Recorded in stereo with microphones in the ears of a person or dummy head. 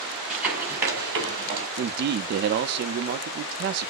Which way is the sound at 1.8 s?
60° right (ahead or behind).